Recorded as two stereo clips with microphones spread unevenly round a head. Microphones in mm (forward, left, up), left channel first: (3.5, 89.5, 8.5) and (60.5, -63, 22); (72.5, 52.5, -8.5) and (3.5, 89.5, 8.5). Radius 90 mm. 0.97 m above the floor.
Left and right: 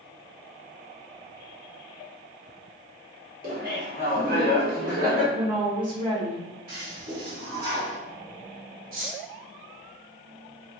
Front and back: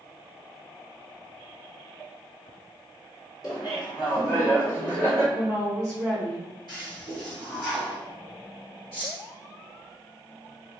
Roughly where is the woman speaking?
Behind right.